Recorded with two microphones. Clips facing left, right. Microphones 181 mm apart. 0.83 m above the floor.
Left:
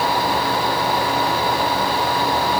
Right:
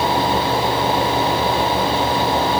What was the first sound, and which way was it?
Only background noise.